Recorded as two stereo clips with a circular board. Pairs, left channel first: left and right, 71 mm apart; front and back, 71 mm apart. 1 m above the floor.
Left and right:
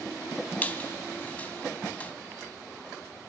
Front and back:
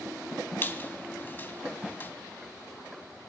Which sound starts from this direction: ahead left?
A squeak, at 0.6 s.